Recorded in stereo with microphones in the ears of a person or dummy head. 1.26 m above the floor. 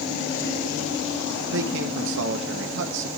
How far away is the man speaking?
About 1.3 m.